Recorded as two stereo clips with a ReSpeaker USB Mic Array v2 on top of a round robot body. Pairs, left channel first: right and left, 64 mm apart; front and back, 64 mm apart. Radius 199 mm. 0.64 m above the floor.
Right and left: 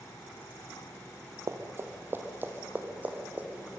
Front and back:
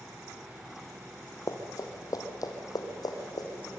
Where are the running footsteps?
40° left, 1.6 m; by 3.7 s 20° left, 3.5 m.